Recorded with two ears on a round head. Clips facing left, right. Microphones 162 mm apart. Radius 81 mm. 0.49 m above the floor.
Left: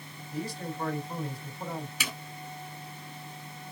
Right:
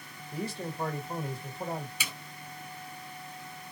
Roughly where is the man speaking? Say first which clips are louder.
Even; right.